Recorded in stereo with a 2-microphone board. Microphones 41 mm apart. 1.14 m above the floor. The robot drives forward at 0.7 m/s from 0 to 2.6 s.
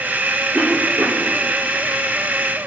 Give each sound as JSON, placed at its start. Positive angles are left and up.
{"t": 0.5, "sound": "a cough", "side_deg": -65, "distance_m": 3.0}